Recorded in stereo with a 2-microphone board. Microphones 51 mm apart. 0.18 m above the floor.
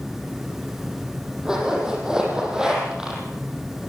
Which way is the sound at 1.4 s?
15° right (ahead or behind).